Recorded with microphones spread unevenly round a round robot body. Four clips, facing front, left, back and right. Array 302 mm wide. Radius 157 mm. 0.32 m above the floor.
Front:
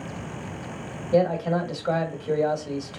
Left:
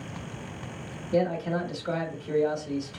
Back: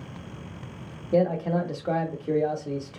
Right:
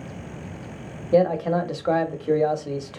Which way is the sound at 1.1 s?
75° right.